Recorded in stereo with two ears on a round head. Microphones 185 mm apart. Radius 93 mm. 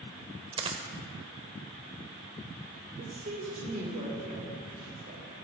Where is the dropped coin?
25° right (ahead or behind), 1.0 m.